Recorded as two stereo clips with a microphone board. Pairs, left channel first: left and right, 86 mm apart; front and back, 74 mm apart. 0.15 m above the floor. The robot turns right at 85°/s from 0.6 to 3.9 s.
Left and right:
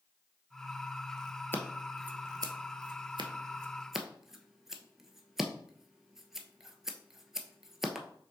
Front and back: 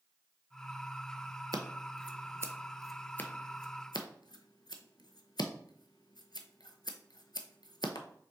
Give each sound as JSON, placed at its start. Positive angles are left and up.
{"t": 1.5, "sound": "scissors", "azimuth_deg": 155, "distance_m": 0.6}